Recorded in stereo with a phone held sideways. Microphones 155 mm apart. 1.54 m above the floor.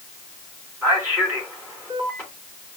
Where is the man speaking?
20° right (ahead or behind), 3.5 m.